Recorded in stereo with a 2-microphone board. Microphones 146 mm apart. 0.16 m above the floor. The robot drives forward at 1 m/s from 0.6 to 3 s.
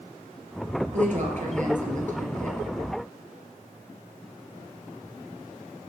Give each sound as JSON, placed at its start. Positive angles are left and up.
{"t": 0.9, "sound": "a woman speaking", "side_deg": -55, "distance_m": 3.5}